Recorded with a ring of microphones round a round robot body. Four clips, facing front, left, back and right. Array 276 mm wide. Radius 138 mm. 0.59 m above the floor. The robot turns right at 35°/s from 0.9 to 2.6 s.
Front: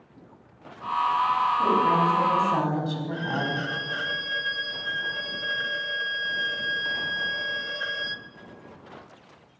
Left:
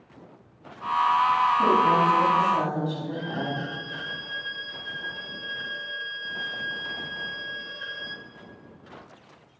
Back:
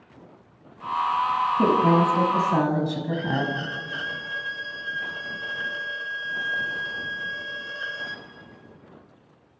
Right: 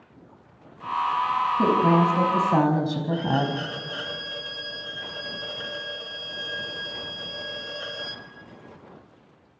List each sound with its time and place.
1.6 s a woman speaking: 145° right, 5 m; by 3.6 s 110° right, 5 m
3.1 s a violin: 60° right, 1.1 m